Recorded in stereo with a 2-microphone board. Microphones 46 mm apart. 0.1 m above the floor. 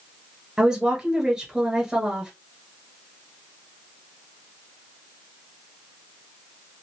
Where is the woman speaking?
15° right (ahead or behind), 1.4 m.